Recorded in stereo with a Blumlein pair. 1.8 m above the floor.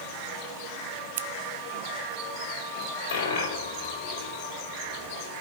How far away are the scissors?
About 0.6 m.